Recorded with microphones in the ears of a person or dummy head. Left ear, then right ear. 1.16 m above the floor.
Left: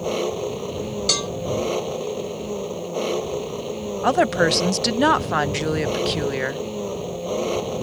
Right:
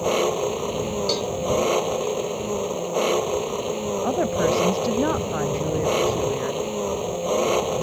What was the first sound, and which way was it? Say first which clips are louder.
An engine running: right 3 dB; 20° right (ahead or behind).